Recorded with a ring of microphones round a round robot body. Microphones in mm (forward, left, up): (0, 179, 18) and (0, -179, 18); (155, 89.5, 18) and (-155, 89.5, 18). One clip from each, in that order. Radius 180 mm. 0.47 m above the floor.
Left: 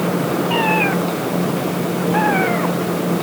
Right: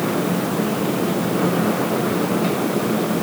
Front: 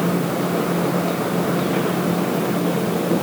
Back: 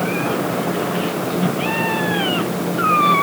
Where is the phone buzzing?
I don't hear a phone buzzing.